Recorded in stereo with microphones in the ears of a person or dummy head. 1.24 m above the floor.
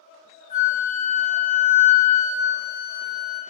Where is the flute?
40° left (ahead or behind), 0.9 m.